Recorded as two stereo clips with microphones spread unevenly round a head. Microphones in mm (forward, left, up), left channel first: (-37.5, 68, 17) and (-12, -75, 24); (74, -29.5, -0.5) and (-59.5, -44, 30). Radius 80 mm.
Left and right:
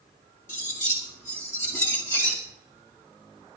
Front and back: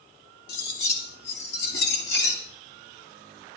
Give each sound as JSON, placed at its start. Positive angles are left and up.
{"t": 0.5, "sound": "cutlery clinking", "azimuth_deg": 25, "distance_m": 1.9}